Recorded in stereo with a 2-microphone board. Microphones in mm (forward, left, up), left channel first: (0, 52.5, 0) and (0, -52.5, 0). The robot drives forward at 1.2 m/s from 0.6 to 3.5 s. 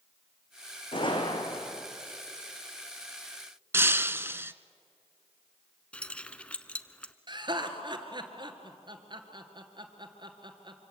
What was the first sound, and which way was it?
A gunshot, 55° left (ahead or behind).